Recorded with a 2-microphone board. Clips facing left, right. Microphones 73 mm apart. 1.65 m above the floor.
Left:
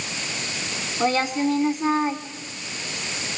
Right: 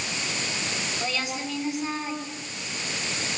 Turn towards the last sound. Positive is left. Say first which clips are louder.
# left 13 dB
turn(degrees=40)  # may be behind; listen again after turning